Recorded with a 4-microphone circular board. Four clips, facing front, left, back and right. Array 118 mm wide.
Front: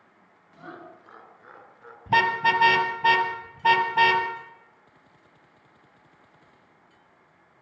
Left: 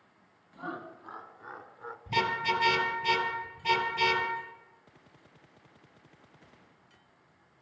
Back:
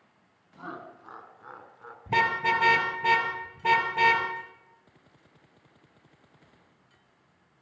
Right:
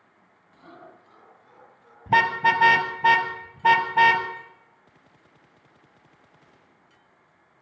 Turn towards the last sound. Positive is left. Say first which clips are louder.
# right 9 dB, front 4 dB
turn(degrees=-85)